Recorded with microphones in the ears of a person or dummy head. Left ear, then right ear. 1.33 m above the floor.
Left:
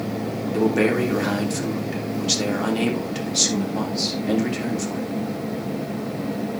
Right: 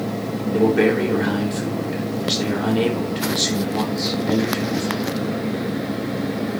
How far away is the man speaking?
About 3 m.